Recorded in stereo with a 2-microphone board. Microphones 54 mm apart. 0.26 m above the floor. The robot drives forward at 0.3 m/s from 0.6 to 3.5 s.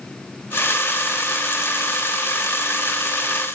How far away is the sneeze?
No sneeze in this recording.